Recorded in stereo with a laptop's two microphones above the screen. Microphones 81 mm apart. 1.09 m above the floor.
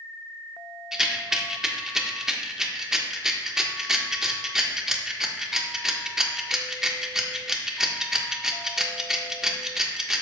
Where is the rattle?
5° right (ahead or behind), 1.3 m.